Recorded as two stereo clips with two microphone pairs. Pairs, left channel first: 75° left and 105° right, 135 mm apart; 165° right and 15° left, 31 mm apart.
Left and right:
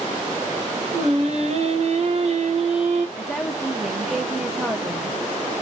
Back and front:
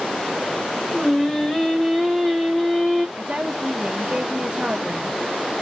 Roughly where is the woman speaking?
Ahead.